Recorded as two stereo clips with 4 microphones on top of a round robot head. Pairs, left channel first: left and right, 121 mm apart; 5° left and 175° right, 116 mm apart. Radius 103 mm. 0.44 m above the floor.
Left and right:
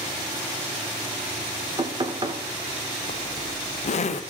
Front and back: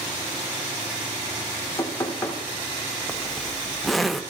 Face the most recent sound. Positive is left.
turn(degrees=95)